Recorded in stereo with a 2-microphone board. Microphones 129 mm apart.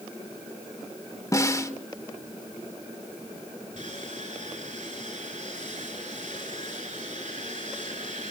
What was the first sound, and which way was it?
A snare drum, 25° left (ahead or behind).